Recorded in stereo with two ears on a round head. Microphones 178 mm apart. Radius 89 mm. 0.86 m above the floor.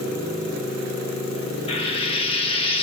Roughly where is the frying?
Left.